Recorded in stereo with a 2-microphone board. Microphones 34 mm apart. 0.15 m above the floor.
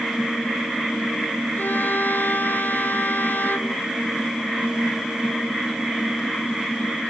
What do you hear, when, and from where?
1.6 s a violin: 70° left (ahead or behind)